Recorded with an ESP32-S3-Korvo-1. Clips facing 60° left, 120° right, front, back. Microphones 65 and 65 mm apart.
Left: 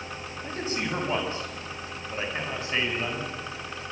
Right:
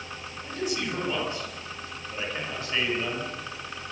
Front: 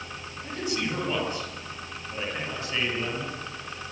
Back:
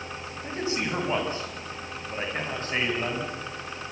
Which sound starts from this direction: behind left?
A man speaking, at 0.4 s.